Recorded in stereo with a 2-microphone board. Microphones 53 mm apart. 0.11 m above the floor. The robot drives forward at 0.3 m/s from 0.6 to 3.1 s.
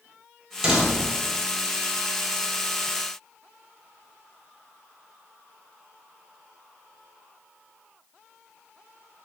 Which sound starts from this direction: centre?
A door slam, at 0.6 s.